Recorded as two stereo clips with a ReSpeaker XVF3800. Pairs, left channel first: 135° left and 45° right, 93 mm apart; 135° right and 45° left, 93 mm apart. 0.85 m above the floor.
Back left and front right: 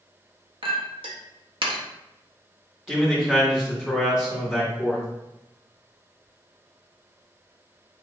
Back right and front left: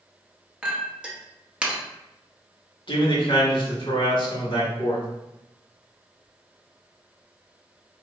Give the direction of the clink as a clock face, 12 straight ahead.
1 o'clock.